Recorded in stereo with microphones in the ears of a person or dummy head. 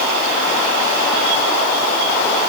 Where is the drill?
No drill in this recording.